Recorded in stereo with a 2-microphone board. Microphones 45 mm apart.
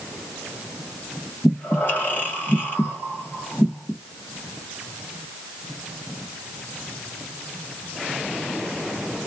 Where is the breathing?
45° left (ahead or behind), 1.6 m.